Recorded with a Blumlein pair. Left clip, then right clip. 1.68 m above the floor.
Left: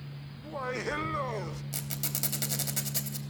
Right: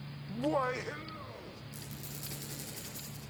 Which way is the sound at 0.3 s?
60° right.